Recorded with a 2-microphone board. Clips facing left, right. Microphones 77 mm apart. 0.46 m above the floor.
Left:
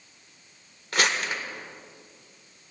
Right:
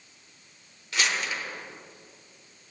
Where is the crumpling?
50° left (ahead or behind), 1.3 m.